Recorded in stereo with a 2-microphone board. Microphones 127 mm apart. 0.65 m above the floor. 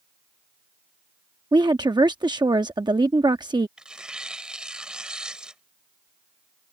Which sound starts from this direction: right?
A woman speaking, at 1.5 s.